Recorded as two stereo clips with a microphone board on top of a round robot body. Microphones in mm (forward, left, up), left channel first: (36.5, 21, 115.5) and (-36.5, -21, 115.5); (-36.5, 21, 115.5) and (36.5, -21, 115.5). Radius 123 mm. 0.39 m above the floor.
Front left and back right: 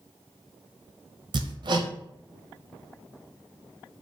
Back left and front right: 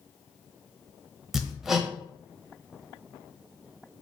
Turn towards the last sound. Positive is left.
turn(degrees=-115)